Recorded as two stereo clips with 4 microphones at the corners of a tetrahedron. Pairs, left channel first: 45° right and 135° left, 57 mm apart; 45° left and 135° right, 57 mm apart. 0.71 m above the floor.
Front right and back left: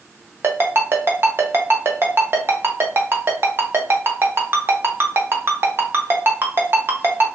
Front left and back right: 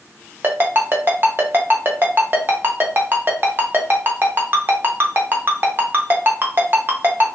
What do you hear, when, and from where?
0.4 s a ringtone: straight behind, 0.6 m